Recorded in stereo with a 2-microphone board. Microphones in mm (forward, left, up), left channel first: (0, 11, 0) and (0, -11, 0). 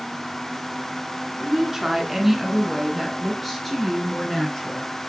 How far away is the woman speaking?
About 1.6 m.